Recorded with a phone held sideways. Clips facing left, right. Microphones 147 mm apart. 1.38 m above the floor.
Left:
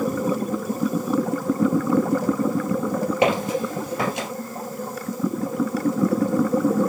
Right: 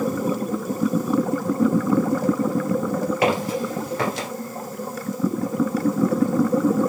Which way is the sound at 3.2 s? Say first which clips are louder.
Left 3 dB; 25° left (ahead or behind).